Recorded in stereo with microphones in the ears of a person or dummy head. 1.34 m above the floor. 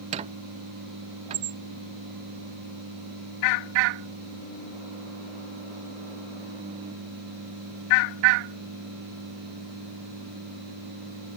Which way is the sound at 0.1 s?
40° right (ahead or behind).